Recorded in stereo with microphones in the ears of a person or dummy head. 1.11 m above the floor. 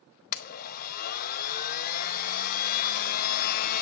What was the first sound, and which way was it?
A blender, 50° left (ahead or behind).